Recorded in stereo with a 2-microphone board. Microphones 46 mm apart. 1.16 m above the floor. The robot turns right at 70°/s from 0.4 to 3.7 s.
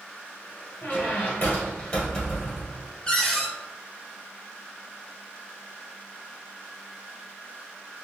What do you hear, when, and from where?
0.8 s a squeak: 75° left, 1.7 m; by 2.9 s 145° right, 1.7 m
3.1 s a cupboard door: 155° left, 0.9 m; by 3.5 s 170° right, 0.9 m